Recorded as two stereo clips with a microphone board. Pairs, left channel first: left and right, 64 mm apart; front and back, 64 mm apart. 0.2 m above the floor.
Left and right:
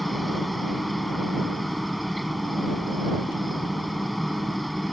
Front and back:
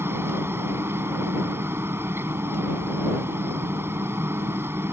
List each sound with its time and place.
0.0 s a helicopter: straight behind